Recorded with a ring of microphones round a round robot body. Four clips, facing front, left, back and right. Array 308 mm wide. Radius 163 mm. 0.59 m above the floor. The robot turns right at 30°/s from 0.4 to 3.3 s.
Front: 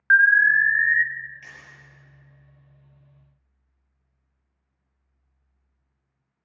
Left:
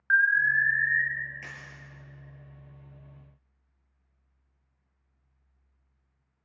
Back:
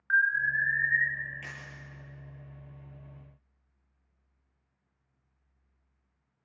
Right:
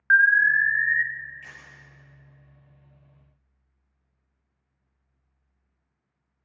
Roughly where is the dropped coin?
Behind left.